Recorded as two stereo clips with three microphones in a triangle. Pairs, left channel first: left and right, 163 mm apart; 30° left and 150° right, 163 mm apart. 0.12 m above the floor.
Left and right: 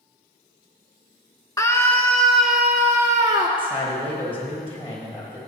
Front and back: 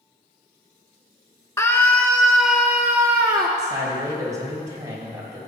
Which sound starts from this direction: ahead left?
A scream, at 1.6 s.